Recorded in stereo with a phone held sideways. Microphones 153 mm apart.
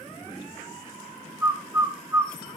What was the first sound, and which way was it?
A bird, 20° right (ahead or behind).